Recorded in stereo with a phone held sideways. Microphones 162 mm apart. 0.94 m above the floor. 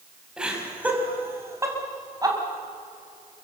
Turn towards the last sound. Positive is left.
turn(degrees=-25)  # may be behind; listen again after turning